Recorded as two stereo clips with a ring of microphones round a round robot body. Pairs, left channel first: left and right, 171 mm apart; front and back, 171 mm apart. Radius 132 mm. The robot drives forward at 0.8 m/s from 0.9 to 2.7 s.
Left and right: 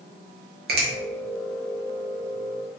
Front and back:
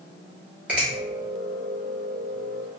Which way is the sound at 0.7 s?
100° right.